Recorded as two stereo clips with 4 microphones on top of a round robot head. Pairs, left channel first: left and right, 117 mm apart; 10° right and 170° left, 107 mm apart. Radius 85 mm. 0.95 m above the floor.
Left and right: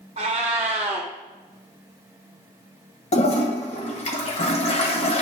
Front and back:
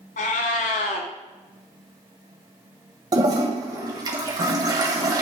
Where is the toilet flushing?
115° left, 1.5 m.